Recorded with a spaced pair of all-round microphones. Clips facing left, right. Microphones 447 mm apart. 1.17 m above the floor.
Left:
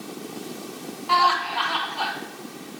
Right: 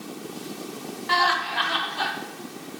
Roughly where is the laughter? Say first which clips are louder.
Left 3 dB; right.